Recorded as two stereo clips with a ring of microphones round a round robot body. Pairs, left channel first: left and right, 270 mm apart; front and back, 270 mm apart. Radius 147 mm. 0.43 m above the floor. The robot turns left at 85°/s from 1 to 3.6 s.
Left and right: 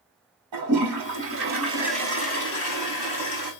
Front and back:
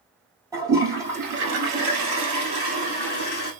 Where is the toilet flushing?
100° right, 1.7 m; by 3.5 s 45° left, 1.7 m.